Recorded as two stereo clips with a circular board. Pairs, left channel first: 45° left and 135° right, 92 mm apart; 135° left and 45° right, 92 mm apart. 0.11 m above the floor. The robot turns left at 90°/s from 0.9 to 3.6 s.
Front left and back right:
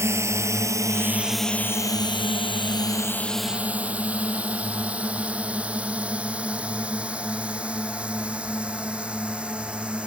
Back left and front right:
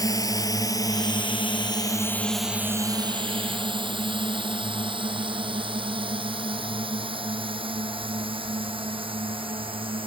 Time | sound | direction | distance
0.0 | a drone | 175° left | ?